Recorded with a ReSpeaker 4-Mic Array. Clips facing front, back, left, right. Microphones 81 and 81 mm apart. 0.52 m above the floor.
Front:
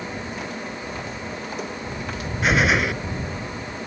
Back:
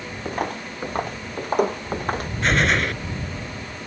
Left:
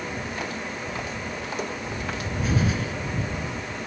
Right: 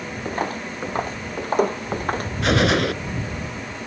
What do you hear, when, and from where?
0.2 s footsteps: 140° right; by 2.3 s 135° right
2.4 s a gunshot: 85° right